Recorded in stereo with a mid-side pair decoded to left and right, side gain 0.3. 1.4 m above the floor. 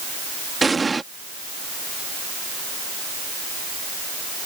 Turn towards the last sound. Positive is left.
turn(degrees=-35)